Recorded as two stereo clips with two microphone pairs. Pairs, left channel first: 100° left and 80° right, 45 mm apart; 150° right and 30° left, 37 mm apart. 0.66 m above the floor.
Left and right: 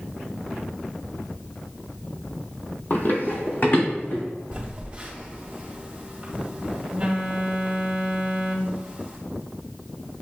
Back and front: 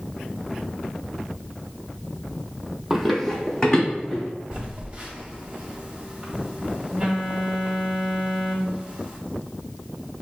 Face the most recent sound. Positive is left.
turn(degrees=-25)